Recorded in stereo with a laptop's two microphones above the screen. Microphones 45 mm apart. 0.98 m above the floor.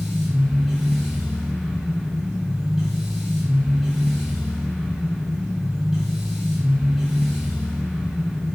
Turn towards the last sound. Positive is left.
turn(degrees=-5)  # may be behind; listen again after turning